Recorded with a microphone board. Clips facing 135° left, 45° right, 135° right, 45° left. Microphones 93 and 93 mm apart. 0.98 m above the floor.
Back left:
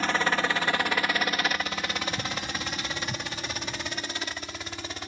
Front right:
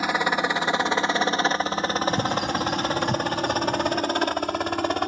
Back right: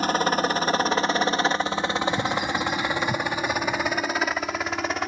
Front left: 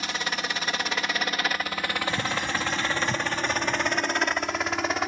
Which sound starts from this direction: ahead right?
A bird, at 2.1 s.